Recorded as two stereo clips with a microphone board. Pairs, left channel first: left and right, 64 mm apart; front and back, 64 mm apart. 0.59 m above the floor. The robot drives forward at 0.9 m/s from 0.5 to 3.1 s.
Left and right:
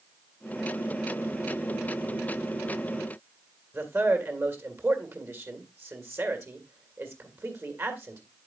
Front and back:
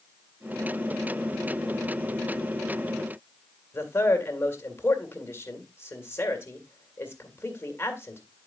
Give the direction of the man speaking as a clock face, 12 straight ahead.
2 o'clock.